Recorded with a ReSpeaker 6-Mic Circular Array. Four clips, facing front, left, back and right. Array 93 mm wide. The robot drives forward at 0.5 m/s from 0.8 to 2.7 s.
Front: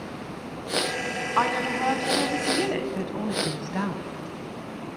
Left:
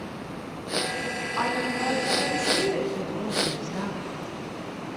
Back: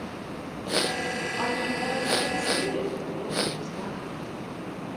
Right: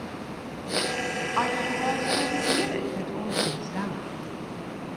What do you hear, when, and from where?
1.4 s a woman speaking: 20° right, 3.5 m; by 4.0 s 25° right, 3 m